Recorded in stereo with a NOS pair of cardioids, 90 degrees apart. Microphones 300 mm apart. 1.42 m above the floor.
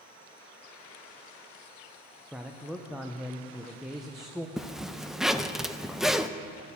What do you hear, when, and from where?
2.3 s a man speaking: straight ahead, 0.9 m
4.6 s a zipper: straight ahead, 0.5 m